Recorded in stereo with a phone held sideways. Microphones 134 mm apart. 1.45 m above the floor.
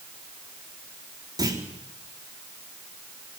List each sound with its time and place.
1.4 s a clunk: 30° right (ahead or behind), 3.5 m